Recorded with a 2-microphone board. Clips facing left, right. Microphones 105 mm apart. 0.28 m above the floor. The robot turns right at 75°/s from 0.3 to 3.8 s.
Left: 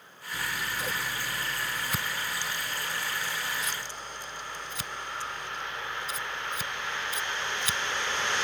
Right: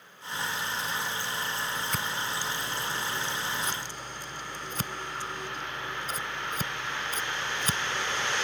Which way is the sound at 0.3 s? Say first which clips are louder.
Right 1 dB; 55° left (ahead or behind).